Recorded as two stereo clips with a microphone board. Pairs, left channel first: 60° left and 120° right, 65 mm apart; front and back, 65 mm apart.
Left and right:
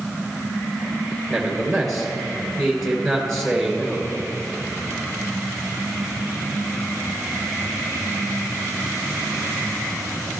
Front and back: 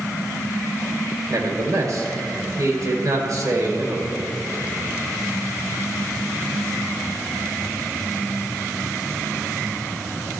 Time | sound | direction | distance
1.3 | a man speaking | 150° left | 2.5 m